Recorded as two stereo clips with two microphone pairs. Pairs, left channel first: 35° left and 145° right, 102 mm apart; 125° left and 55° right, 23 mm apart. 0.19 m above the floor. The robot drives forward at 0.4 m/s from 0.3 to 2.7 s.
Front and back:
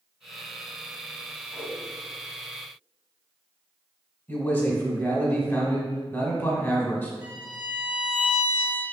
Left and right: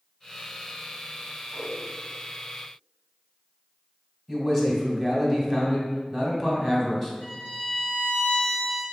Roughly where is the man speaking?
Ahead left.